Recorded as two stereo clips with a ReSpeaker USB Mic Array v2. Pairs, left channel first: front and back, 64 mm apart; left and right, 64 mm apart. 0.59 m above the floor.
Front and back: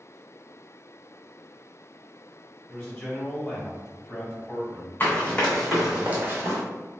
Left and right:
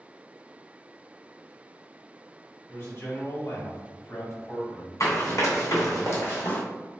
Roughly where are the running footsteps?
Ahead left.